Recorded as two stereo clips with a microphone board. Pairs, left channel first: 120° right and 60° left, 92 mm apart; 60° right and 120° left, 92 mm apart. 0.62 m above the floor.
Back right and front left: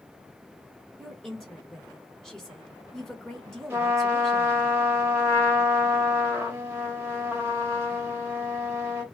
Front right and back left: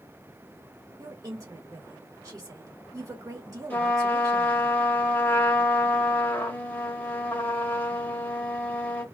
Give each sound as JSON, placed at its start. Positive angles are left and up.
{"t": 1.0, "sound": "a woman speaking", "azimuth_deg": 160, "distance_m": 1.7}
{"t": 3.7, "sound": "a trumpet", "azimuth_deg": 0, "distance_m": 0.9}